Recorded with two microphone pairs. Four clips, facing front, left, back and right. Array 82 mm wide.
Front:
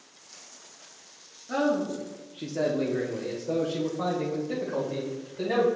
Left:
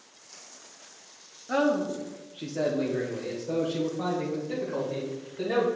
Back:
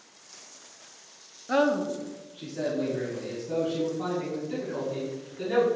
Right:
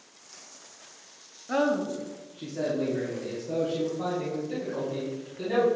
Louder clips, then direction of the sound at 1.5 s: Left 1 dB, back 2 dB; 175° right.